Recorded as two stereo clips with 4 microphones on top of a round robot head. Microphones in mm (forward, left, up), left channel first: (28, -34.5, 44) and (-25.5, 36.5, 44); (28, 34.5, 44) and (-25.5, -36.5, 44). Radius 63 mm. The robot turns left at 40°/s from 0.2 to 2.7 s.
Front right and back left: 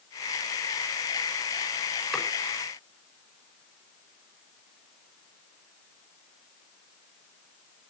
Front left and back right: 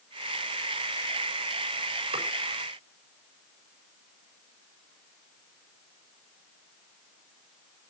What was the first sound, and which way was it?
Chopping, 140° right.